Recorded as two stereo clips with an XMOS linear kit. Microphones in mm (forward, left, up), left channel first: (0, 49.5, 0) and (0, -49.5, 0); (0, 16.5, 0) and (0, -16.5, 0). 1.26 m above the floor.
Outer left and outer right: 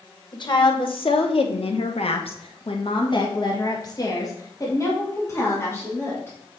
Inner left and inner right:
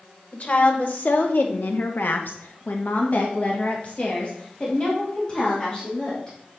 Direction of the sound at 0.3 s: 50° left (ahead or behind).